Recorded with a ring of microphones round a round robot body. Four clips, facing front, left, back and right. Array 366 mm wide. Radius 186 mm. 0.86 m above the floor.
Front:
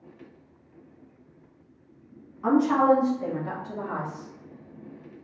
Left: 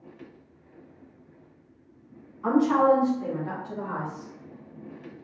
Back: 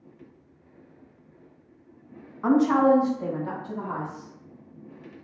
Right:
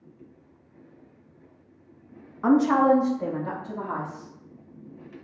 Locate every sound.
2.4 s a woman speaking: 115° right, 1.0 m; by 4.3 s 100° right, 1.9 m